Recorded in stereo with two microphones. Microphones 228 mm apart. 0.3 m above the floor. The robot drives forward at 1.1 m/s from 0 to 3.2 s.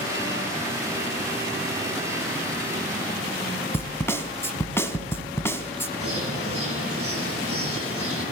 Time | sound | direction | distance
3.7 | a snare drum | 10° left (ahead or behind) | 1.5 m
6.0 | a bird | 80° right | 8.5 m